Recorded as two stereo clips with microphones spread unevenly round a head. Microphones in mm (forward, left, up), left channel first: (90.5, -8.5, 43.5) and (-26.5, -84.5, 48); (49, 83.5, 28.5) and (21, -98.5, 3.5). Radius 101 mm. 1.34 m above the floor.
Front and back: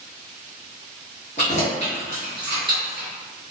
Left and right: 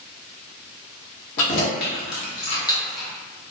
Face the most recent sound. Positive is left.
turn(degrees=170)